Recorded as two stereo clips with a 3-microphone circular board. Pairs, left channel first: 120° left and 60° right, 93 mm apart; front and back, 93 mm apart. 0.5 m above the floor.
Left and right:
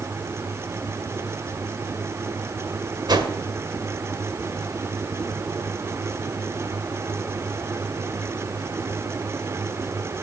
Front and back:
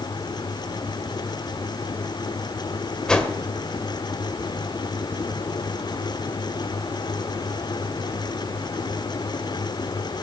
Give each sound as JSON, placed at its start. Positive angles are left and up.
{"t": 3.1, "sound": "a whoosh", "azimuth_deg": -80, "distance_m": 2.0}